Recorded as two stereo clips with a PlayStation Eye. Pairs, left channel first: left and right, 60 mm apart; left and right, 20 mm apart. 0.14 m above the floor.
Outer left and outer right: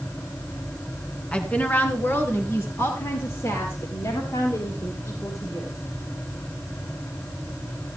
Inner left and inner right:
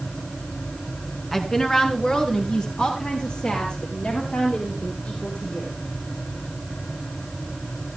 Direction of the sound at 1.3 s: 20° left (ahead or behind).